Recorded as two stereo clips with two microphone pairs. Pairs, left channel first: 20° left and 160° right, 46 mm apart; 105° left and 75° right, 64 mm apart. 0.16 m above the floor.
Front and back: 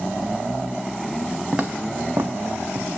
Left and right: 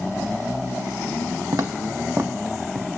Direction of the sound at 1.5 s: 90° right.